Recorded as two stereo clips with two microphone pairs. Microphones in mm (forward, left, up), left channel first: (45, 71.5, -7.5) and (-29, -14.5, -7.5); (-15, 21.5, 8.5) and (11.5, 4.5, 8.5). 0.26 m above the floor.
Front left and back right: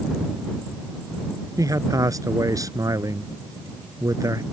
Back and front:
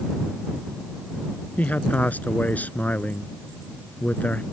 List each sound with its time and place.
1.6 s a man speaking: 170° left